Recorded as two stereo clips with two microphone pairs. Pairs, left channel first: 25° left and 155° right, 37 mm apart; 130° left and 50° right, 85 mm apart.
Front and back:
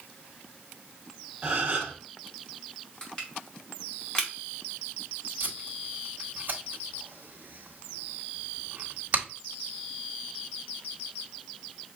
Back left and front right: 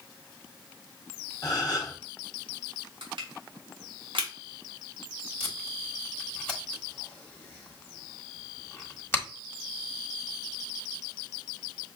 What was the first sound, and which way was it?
A gasp, 165° left.